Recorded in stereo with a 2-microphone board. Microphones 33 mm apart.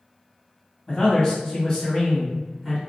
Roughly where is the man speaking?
Left.